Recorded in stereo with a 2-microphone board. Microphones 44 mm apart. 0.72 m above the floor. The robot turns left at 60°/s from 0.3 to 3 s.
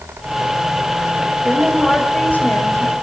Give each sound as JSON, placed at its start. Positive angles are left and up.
{"t": 1.4, "sound": "a woman speaking", "azimuth_deg": -165, "distance_m": 3.5}